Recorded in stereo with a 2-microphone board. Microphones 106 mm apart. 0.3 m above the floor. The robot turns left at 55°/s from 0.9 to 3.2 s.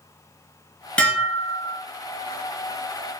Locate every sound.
1.0 s dishes clattering: 165° left, 0.9 m; by 1.8 s 120° left, 0.9 m